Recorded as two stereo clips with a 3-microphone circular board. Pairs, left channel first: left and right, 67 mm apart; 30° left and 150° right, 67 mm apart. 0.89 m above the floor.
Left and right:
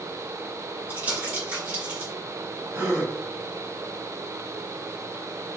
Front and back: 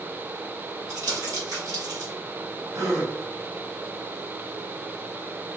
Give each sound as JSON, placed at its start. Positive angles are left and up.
{"t": 0.9, "sound": "crumpling", "azimuth_deg": -160, "distance_m": 1.9}
{"t": 2.7, "sound": "a gasp", "azimuth_deg": -140, "distance_m": 1.0}